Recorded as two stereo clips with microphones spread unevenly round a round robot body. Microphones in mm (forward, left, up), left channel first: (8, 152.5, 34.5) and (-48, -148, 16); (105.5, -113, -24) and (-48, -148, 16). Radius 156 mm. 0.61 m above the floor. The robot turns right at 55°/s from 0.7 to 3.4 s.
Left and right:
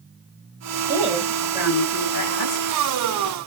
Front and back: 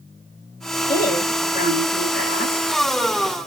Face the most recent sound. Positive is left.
turn(degrees=115)